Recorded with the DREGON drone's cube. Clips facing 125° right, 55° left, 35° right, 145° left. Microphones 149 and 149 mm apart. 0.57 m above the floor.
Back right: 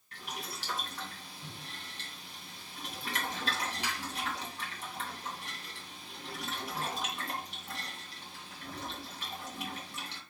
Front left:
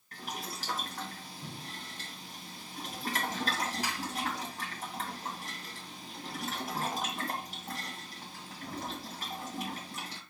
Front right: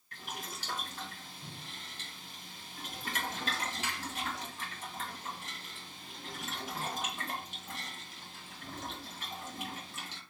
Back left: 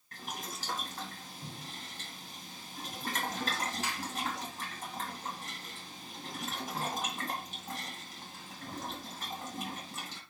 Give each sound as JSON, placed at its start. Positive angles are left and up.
{"t": 0.1, "sound": "boiling", "azimuth_deg": 100, "distance_m": 2.0}